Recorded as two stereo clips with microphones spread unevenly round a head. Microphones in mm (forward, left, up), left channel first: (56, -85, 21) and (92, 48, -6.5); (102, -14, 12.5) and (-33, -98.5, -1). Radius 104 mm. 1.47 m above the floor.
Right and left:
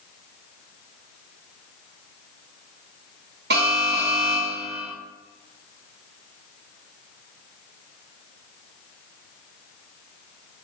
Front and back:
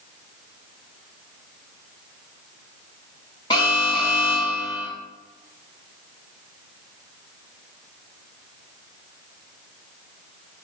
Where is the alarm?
105° left, 0.8 m.